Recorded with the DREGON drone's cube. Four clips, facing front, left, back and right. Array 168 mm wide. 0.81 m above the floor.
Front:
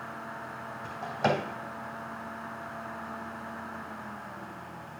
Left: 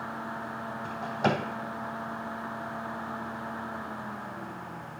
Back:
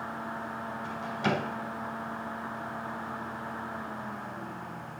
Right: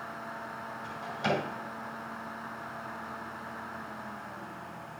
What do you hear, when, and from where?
0.8 s a drawer: 45° left, 2.5 m